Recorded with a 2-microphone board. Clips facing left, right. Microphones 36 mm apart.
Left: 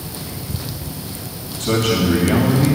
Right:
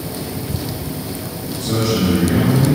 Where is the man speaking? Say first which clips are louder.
Left 1 dB; 70° left (ahead or behind), 2 m.